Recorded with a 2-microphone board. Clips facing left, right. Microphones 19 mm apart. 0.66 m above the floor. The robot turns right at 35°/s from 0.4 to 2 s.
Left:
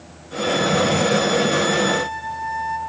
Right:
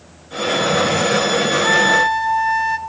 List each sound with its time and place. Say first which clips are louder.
1.6 s a flute: right 6 dB; 55° right (ahead or behind), 1.0 m; by 2.8 s 45° right (ahead or behind), 1.0 m